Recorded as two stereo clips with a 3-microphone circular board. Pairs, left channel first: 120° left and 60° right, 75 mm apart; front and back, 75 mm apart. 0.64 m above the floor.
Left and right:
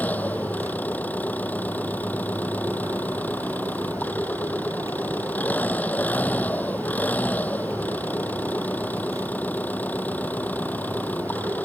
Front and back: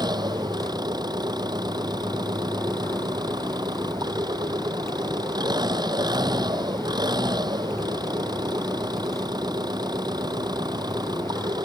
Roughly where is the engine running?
Behind.